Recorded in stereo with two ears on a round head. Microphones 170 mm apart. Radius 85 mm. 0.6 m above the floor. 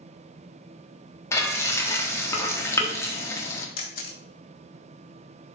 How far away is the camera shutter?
About 1.6 m.